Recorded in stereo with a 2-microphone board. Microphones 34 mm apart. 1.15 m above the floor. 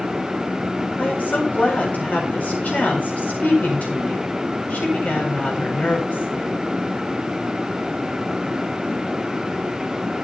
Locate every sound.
1.0 s a woman speaking: 50° left (ahead or behind), 8 m